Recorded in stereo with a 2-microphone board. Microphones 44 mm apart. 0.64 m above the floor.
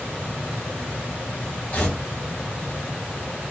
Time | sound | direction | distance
1.7 | tearing paper | 25° left (ahead or behind) | 1.6 m